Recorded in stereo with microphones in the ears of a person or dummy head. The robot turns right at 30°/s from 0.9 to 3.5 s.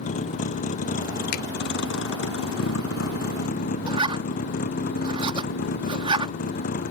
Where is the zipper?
30° right (ahead or behind).